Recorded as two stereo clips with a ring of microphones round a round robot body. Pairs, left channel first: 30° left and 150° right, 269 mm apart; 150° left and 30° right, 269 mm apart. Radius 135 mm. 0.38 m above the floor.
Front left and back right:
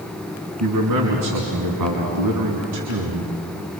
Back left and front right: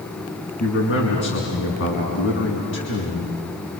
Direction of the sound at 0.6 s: 165° right.